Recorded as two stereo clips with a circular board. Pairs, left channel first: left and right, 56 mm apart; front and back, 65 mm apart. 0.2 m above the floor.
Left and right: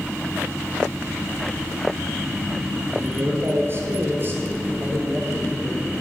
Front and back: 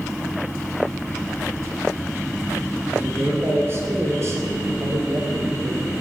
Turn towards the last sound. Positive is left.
turn(degrees=-150)